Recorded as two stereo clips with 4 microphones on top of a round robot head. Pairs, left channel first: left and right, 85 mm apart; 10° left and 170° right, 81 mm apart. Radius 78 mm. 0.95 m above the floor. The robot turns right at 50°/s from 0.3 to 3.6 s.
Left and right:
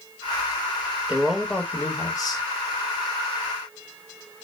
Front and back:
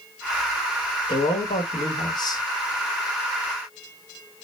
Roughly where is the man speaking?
Ahead.